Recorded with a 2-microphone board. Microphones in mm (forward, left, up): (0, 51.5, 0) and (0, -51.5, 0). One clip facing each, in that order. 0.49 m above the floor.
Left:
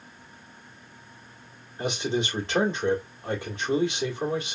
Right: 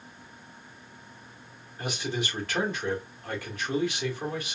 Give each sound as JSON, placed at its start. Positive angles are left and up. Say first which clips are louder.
{"t": 1.8, "sound": "a man speaking", "louder": "left 5 dB", "side_deg": 25, "distance_m": 1.3}